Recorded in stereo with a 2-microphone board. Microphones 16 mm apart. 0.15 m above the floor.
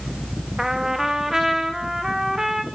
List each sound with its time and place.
0.6 s a trumpet: 35° right (ahead or behind), 3 m